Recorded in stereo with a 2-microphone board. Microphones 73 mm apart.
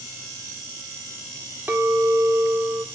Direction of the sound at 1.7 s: 30° right (ahead or behind).